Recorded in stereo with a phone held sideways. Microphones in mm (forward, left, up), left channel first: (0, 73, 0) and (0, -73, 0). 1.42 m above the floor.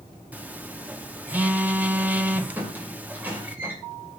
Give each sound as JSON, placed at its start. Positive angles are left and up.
{"t": 0.3, "sound": "a phone buzzing", "side_deg": -10, "distance_m": 0.7}
{"t": 2.6, "sound": "a squeak", "side_deg": -10, "distance_m": 2.5}